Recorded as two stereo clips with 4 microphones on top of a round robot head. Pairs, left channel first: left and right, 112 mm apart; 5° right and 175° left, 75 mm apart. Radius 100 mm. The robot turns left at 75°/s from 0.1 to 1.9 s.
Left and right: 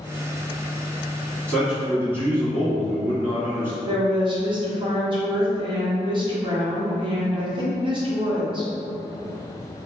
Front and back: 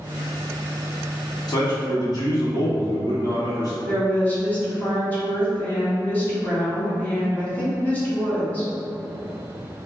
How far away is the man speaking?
About 1.6 m.